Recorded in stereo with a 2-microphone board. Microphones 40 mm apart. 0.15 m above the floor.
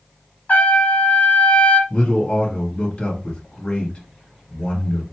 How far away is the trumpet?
About 0.9 m.